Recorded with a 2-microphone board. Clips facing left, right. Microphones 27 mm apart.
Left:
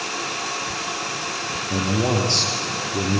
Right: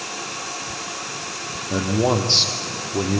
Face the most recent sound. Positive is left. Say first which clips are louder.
# right 2 dB
turn(degrees=-30)  # may be behind; listen again after turning